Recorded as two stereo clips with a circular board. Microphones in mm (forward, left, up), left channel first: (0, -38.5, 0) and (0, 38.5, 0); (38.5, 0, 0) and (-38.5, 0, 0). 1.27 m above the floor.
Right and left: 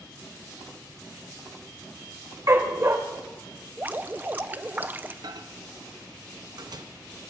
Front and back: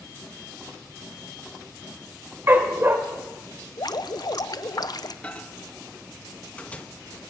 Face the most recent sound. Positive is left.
turn(degrees=70)